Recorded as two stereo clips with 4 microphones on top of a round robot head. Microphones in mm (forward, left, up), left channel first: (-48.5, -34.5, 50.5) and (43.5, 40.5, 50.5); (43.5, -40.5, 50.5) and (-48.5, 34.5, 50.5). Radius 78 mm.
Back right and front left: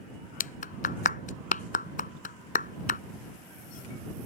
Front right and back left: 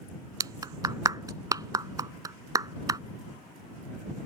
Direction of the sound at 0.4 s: 155° right.